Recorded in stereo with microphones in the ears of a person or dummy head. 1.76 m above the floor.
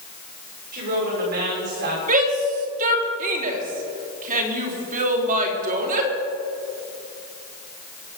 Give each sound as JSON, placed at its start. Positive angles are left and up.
{"t": 0.7, "sound": "a woman speaking", "side_deg": -45, "distance_m": 6.5}
{"t": 2.1, "sound": "a shout", "side_deg": -40, "distance_m": 3.5}